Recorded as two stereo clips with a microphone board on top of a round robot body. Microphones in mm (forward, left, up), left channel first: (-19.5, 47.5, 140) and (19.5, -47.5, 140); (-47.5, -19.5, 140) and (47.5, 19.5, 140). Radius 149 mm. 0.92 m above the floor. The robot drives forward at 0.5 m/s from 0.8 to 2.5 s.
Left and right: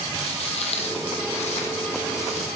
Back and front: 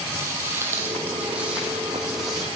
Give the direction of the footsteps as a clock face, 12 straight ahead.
9 o'clock.